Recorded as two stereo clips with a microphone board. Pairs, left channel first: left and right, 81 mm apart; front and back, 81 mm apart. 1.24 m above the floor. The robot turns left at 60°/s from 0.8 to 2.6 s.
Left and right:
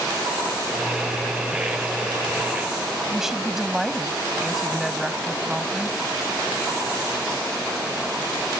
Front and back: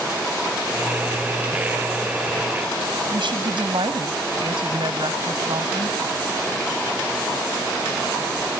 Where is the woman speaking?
175° right.